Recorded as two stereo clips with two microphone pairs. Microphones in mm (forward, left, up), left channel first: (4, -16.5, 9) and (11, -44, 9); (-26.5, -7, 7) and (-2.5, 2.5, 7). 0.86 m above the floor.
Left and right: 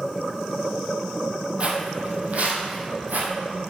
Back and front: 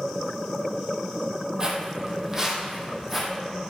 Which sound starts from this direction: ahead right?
Footsteps, at 1.6 s.